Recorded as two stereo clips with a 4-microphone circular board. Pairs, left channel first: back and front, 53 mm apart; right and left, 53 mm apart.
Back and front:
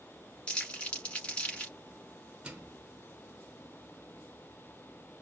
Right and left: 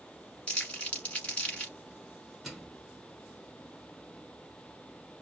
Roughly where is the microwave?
Ahead.